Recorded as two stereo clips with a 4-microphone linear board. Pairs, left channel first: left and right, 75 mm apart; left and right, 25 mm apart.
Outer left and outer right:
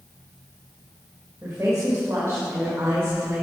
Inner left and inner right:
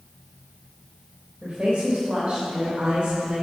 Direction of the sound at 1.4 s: 40° right (ahead or behind).